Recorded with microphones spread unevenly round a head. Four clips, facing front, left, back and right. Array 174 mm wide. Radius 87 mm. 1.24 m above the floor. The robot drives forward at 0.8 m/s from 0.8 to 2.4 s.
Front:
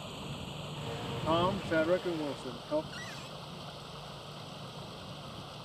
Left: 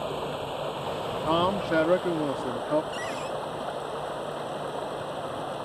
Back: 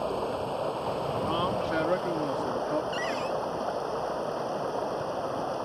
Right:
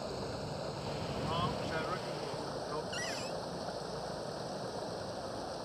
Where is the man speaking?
75° left; by 2.8 s 100° left.